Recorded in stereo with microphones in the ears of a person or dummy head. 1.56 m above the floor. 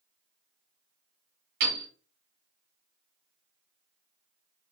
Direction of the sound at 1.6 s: 45° right (ahead or behind).